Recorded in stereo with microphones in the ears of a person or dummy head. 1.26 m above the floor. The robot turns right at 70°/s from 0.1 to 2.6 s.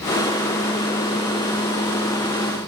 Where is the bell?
No bell in this recording.